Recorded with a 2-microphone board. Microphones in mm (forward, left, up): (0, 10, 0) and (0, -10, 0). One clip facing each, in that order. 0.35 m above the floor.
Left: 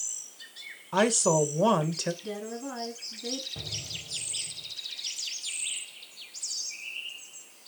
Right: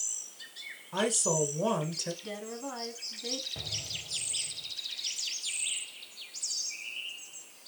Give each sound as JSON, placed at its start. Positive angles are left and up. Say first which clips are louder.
{"t": 0.9, "sound": "a woman speaking", "louder": "left 5 dB", "side_deg": 30, "distance_m": 1.5}
{"t": 2.2, "sound": "a woman speaking", "louder": "left 3 dB", "side_deg": -15, "distance_m": 3.0}
{"t": 3.5, "sound": "an explosion", "louder": "even", "side_deg": -15, "distance_m": 1.9}